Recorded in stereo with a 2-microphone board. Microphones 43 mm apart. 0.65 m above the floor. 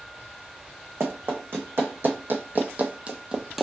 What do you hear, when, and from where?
1.0 s running footsteps: 70° right (ahead or behind), 1.7 m; by 3.6 s 10° right (ahead or behind), 0.7 m